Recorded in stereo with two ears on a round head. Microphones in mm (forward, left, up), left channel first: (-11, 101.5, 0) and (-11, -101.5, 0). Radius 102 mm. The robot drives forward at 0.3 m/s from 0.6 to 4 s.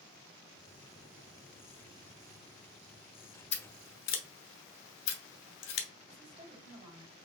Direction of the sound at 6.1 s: 25° right (ahead or behind).